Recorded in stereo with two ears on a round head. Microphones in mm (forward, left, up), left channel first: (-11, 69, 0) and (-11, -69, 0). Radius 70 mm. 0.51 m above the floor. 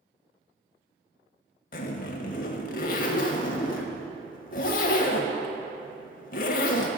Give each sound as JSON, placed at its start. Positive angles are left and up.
{"t": 1.7, "sound": "a zipper", "side_deg": 55, "distance_m": 0.7}